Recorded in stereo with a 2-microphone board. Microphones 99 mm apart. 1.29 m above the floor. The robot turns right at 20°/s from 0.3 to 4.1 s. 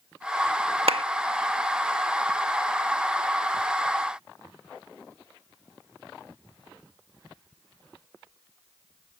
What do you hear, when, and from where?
0.9 s a clap: 75° right (ahead or behind)